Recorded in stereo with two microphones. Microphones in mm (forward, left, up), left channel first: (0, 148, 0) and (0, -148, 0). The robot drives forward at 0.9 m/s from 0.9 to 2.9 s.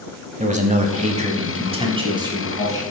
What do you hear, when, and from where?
0.4 s a man speaking: 25° right (ahead or behind), 1.0 m; by 2.8 s 10° right (ahead or behind), 1.9 m